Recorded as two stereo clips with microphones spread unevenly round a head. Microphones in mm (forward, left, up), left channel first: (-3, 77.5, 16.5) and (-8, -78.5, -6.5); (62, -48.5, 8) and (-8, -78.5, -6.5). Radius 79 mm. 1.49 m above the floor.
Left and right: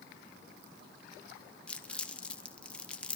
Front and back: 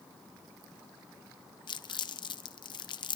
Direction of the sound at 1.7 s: 5° left.